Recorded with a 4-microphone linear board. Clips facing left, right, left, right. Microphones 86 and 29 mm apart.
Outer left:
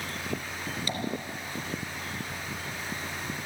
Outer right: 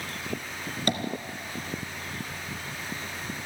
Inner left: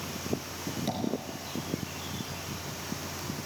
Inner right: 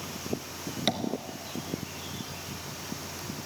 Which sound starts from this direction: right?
Tapping, at 0.9 s.